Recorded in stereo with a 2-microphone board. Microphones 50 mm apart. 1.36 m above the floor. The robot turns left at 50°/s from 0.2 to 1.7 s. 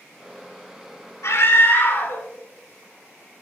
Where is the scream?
75° left (ahead or behind), 3 m; by 2.2 s 55° left (ahead or behind), 3 m.